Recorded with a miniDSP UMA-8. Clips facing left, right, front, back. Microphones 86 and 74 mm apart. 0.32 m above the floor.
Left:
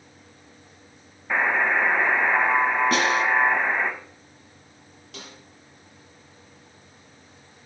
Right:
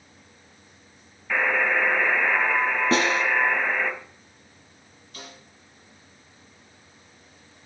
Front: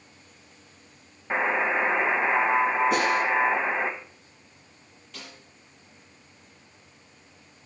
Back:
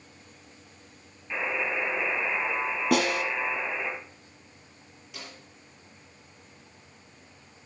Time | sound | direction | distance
1.3 | a buzzer | 25° left | 1.4 m
2.9 | a snare drum | 155° right | 3.5 m
5.1 | a snare drum | 100° left | 9 m